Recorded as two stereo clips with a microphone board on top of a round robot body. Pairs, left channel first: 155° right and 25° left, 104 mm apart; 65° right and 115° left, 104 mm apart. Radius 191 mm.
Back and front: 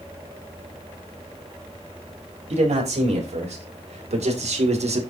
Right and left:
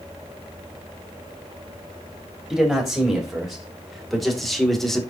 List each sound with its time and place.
2.5 s a man speaking: 25° left, 4 m; by 5.0 s 20° left, 2 m